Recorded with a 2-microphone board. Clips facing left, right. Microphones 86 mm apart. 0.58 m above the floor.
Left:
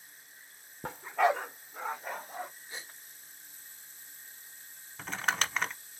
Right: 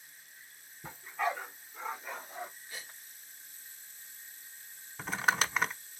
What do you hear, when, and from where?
0.8 s a dog barking: 60° left (ahead or behind), 0.6 m; by 2.5 s 45° left (ahead or behind), 2 m
2.7 s a gasp: 25° left (ahead or behind), 0.9 m
5.0 s crumpling: 10° right (ahead or behind), 0.8 m